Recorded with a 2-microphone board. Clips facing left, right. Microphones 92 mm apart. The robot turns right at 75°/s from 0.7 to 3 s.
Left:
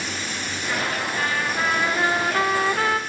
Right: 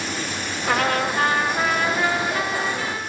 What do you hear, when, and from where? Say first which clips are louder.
0.7 s a trumpet: right 6 dB; 80° right, 3 m; by 3.0 s 95° left, 3 m